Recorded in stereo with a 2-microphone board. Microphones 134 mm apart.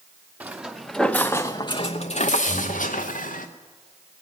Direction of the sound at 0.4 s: 15° right (ahead or behind).